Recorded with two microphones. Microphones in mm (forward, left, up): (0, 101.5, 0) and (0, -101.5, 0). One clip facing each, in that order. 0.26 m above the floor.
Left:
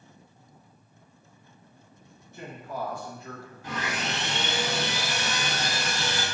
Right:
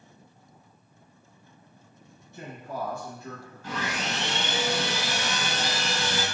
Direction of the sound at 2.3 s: 35° right (ahead or behind).